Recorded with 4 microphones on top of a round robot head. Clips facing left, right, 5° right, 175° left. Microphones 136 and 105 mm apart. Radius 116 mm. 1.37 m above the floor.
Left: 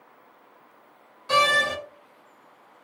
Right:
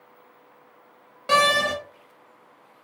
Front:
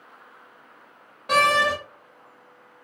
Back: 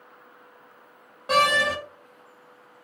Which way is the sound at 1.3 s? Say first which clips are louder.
Right 2 dB, front 1 dB; 110° right.